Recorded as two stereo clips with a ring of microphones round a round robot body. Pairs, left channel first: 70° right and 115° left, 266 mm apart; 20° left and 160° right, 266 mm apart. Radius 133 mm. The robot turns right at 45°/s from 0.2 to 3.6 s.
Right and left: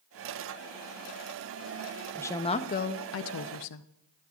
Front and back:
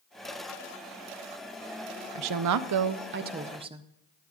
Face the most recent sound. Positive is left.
turn(degrees=-85)